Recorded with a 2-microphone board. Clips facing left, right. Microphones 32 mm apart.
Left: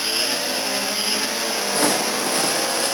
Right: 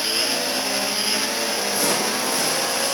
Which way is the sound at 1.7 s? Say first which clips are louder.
Left 4 dB; 50° left (ahead or behind).